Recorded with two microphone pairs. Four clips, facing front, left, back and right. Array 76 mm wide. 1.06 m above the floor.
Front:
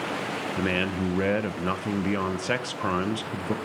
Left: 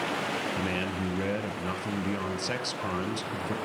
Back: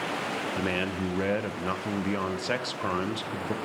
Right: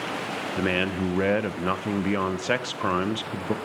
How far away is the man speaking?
About 0.7 m.